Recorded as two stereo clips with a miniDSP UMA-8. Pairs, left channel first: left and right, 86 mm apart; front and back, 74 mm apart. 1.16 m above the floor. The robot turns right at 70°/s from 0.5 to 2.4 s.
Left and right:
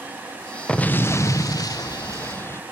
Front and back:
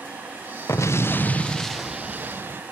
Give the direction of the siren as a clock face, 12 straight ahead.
No siren in this recording.